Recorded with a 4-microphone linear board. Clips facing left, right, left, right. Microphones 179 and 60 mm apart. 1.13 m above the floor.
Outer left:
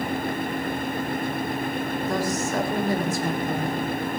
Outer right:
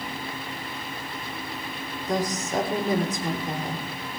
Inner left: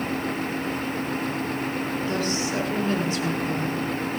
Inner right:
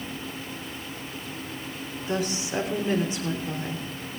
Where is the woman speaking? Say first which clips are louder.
Outer right 2 dB, inner right 1 dB; 20° right (ahead or behind), 3.5 m.